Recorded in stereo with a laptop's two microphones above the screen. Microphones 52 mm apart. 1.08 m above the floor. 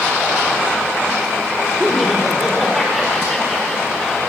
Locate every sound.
1.8 s laughter: 5° right (ahead or behind), 4 m; by 4.2 s 15° left (ahead or behind), 4.5 m